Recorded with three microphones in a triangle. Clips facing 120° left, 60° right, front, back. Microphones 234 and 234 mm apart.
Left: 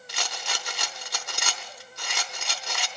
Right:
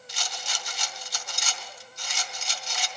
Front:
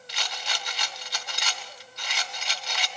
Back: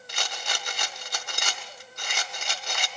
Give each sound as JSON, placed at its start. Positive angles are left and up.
{"t": 0.1, "sound": "a rattle", "azimuth_deg": 140, "distance_m": 0.8}